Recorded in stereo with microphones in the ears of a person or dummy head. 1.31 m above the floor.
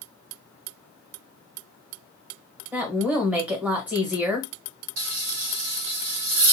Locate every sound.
2.7 s a woman speaking: 10° right (ahead or behind), 1.2 m
5.0 s frying: 70° right (ahead or behind), 1.7 m